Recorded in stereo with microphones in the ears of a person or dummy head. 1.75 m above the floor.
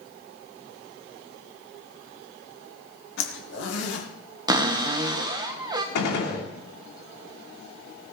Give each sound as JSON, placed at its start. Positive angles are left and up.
{"t": 3.2, "sound": "a zipper", "side_deg": 80, "distance_m": 2.5}
{"t": 4.5, "sound": "a cupboard door", "side_deg": -25, "distance_m": 1.2}
{"t": 6.0, "sound": "a gunshot", "side_deg": 60, "distance_m": 2.5}